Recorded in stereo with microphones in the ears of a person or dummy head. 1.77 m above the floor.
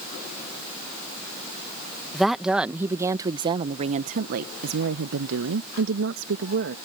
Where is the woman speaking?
Centre (ahead or behind); by 6.8 s 70° right (ahead or behind).